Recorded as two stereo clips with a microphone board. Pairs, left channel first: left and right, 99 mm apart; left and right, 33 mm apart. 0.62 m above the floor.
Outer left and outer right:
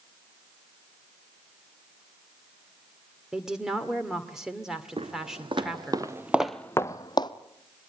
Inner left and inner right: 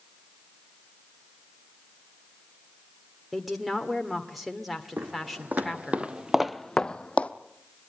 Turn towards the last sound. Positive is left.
turn(degrees=45)  # may be behind; listen again after turning